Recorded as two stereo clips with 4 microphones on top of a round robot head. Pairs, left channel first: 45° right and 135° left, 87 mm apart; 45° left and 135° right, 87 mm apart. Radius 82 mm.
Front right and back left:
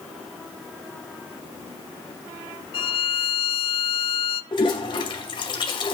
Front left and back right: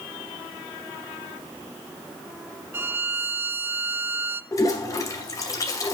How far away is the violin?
About 0.6 m.